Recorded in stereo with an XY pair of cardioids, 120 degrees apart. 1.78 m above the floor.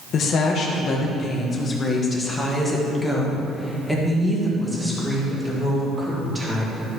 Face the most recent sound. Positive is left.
turn(degrees=-15)